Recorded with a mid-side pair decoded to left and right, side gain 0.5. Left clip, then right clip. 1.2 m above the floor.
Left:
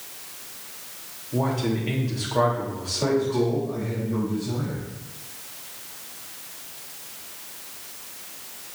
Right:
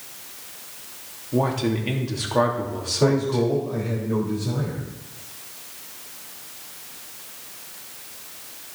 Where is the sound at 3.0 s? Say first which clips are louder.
Right 2 dB; 65° right, 4 m.